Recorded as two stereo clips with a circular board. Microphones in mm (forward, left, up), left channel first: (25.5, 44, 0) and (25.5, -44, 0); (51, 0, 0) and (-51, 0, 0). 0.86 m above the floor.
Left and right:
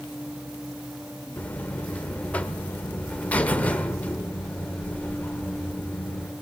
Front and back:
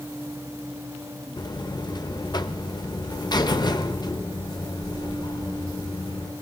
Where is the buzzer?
20° left, 0.7 m.